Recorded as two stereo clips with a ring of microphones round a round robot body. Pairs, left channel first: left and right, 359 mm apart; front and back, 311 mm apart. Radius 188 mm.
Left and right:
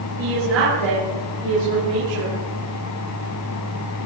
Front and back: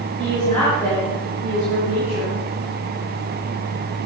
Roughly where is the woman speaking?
Right.